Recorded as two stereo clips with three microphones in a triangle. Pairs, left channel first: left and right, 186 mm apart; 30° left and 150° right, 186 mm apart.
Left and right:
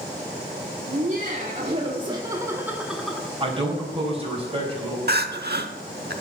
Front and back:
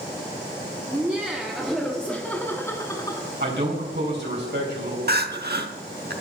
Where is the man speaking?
145° right, 4 m.